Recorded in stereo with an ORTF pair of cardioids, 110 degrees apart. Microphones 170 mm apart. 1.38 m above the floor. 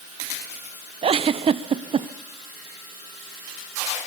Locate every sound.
1.0 s a giggle: 35° right, 0.7 m